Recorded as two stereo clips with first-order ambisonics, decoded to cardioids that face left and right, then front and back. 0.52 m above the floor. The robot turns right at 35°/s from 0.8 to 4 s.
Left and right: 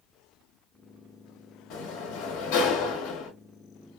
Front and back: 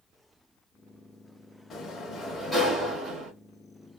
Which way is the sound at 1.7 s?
65° left.